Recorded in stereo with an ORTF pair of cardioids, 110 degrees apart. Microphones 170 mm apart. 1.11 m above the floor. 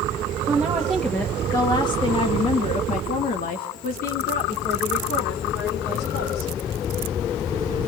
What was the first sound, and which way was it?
A woman speaking, 10° right.